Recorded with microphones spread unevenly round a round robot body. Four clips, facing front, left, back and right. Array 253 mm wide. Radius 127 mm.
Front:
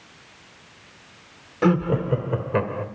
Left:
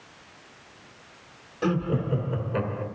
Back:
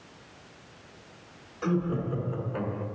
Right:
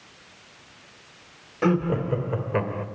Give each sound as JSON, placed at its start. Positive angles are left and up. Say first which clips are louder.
{"t": 1.6, "sound": "laughter", "louder": "right 3 dB, front 8 dB", "azimuth_deg": -20, "distance_m": 1.6}